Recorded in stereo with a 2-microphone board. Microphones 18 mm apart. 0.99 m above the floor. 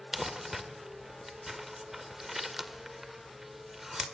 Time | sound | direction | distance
0.1 | crumpling | 15° right (ahead or behind) | 1.6 m